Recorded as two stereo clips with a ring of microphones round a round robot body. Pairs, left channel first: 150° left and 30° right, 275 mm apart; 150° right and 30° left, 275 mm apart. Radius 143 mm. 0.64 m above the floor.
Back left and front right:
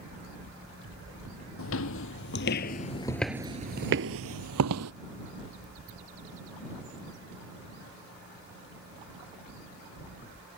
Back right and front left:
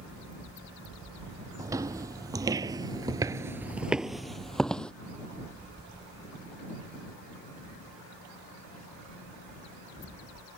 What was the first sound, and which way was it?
Footsteps, 110° left.